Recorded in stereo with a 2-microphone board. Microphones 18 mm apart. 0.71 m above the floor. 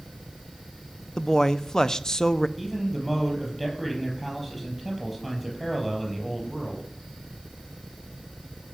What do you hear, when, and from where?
1.2 s a man speaking: 30° left (ahead or behind), 0.5 m
2.6 s a man speaking: centre (ahead or behind), 4.5 m